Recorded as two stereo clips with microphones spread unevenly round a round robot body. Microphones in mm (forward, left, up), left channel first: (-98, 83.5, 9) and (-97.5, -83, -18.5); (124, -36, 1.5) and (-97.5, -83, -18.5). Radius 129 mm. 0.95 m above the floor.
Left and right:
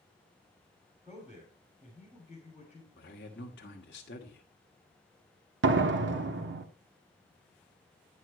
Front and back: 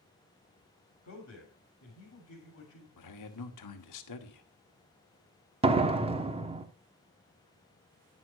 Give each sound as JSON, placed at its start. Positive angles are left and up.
{"t": 1.0, "sound": "a man speaking", "azimuth_deg": -10, "distance_m": 3.5}
{"t": 3.0, "sound": "a man speaking", "azimuth_deg": 35, "distance_m": 1.3}
{"t": 5.6, "sound": "a door slam", "azimuth_deg": -100, "distance_m": 1.1}